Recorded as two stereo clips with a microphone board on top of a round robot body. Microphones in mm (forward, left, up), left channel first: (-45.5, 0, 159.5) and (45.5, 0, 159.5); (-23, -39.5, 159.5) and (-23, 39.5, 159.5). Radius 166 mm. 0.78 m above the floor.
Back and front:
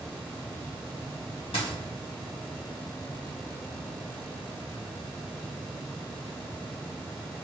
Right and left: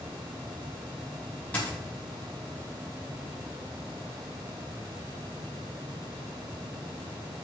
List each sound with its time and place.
1.5 s a dropped coin: 160° right, 0.8 m